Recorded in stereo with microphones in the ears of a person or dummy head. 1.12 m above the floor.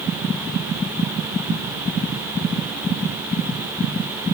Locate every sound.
Only background noise.